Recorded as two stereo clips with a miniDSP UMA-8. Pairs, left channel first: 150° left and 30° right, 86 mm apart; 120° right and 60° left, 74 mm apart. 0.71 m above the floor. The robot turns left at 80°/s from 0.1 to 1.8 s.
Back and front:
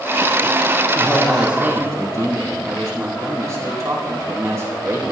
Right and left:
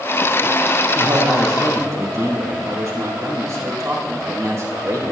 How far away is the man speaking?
About 3 m.